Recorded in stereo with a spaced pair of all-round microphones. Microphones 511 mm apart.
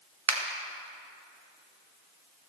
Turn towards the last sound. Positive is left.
turn(degrees=-30)  # may be behind; listen again after turning